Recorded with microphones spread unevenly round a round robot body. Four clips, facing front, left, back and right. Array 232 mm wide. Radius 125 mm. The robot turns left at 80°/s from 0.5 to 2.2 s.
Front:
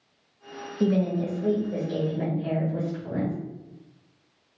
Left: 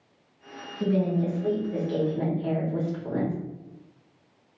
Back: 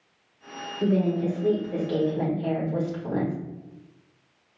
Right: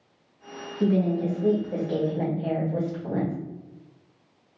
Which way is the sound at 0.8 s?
15° right.